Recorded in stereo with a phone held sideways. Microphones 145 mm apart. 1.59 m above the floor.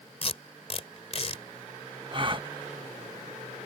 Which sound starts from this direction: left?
Tape being pulled, at 0.2 s.